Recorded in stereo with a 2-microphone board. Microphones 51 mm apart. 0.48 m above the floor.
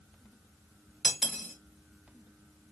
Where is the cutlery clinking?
5° right (ahead or behind), 1.4 m.